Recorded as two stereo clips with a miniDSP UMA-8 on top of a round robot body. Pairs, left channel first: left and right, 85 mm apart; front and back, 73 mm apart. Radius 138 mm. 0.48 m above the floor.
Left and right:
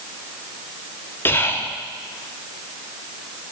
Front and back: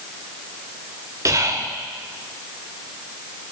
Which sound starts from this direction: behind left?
Whispering, at 1.2 s.